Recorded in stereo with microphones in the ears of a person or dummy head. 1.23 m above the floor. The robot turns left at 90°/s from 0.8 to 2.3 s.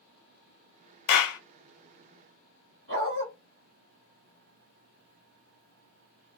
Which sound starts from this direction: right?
A dog barking, at 2.9 s.